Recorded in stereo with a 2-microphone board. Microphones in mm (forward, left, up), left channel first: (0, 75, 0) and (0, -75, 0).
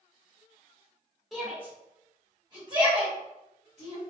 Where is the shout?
Centre (ahead or behind), 1.4 m; by 4.0 s 50° right (ahead or behind), 2 m.